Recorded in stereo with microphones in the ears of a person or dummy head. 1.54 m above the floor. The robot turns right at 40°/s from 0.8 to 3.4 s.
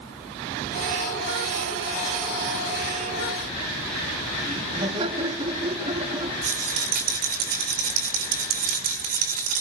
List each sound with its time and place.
4.4 s laughter: 30° right (ahead or behind), 2.5 m
6.4 s a rattle: 50° right (ahead or behind), 1.9 m